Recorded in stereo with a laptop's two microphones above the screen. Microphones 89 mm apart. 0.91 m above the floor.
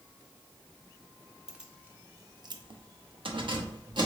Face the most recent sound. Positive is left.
turn(degrees=-55)  # may be behind; listen again after turning